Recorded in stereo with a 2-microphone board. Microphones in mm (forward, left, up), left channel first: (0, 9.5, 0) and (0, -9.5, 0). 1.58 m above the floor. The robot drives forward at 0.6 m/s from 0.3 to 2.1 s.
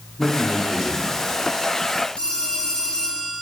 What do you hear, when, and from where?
0.2 s a man speaking: 10° left (ahead or behind), 3.5 m
2.2 s a phone ringing: 65° left (ahead or behind), 3 m